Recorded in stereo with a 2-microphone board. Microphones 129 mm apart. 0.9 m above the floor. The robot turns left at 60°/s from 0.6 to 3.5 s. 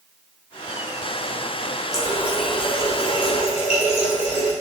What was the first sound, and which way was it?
A running tap, 150° right.